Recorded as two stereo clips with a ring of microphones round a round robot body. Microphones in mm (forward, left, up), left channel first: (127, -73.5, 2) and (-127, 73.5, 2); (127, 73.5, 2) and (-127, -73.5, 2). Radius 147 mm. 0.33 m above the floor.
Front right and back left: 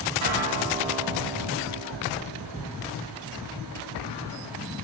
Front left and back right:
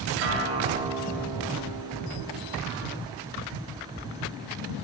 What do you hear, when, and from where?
0.2 s a guitar: 170° left, 3.5 m